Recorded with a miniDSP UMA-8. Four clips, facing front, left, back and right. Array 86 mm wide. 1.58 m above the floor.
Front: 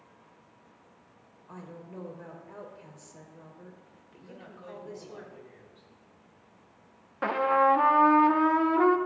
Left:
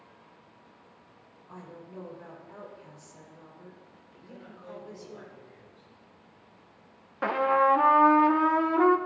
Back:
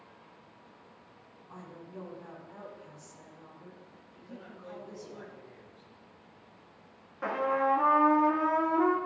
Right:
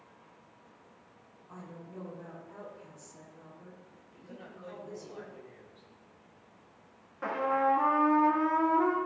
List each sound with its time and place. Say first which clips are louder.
1.5 s a woman speaking: left 2 dB, front 2 dB; 15° left, 4.5 m
4.2 s a man speaking: left 1 dB, even; 30° right, 5.5 m
7.2 s a trumpet: left 5 dB, front 5 dB; 50° left, 0.8 m